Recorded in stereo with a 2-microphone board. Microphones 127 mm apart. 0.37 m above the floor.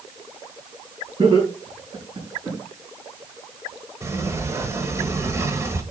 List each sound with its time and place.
1.2 s laughter: 50° right (ahead or behind), 5 m; by 2.6 s 25° right (ahead or behind), 4 m
4.0 s a sliding door: 20° right (ahead or behind), 1.1 m